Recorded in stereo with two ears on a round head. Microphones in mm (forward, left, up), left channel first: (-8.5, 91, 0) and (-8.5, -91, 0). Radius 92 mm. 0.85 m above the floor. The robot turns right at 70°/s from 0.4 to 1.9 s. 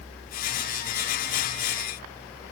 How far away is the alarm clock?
I don't hear an alarm clock.